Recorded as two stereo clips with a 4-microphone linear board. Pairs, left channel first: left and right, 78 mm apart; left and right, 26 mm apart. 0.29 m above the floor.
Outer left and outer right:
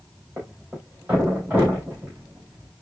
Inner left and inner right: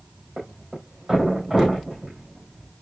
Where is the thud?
20° right (ahead or behind), 4.5 m.